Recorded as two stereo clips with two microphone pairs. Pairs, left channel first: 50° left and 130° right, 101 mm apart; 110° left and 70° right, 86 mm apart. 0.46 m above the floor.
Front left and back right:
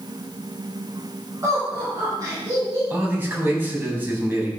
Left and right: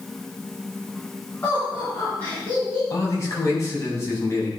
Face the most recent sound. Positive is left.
turn(degrees=160)